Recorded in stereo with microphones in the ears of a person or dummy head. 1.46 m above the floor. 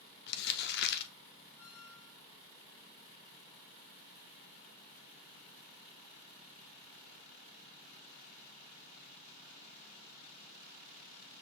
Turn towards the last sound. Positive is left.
turn(degrees=5)  # may be behind; listen again after turning